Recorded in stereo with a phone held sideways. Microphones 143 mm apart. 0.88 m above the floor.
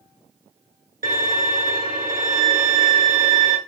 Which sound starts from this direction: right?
A violin, at 1.0 s.